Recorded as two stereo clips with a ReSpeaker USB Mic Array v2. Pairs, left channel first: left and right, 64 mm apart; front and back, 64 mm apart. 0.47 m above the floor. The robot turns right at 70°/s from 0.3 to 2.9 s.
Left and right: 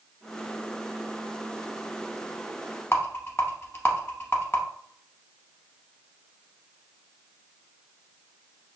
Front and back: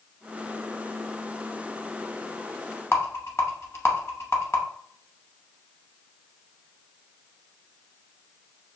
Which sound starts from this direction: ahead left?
A rattle, at 2.9 s.